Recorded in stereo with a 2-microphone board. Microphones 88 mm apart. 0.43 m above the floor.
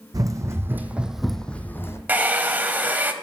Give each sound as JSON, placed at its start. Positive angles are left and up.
{"t": 0.1, "sound": "running footsteps", "side_deg": -45, "distance_m": 1.2}
{"t": 2.1, "sound": "a hair dryer", "side_deg": -20, "distance_m": 0.8}